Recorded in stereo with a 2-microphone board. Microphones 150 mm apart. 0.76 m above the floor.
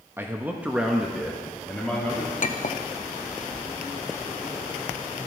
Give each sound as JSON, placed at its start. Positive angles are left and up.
{"t": 0.2, "sound": "a man speaking", "side_deg": -15, "distance_m": 0.9}
{"t": 2.4, "sound": "a clink", "side_deg": 60, "distance_m": 0.6}